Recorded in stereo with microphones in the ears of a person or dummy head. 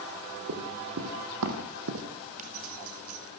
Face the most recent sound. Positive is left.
turn(degrees=-45)  # may be behind; listen again after turning